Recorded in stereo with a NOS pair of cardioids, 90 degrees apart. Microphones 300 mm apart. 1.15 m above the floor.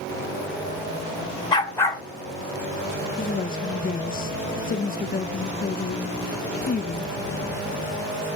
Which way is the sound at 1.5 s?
15° left.